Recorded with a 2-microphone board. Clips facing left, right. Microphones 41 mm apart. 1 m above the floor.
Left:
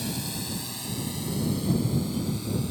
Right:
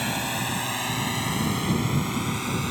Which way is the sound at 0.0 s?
50° right (ahead or behind).